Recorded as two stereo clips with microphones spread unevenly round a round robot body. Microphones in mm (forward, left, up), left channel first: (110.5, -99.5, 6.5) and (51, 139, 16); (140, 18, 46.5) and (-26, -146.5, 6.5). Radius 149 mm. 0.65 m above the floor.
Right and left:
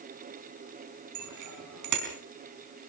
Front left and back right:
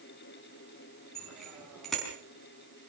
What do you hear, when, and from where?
1.1 s a bicycle bell: 135° left, 4.5 m